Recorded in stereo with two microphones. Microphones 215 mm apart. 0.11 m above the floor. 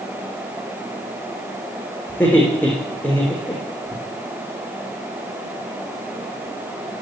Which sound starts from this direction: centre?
Laughter, at 2.1 s.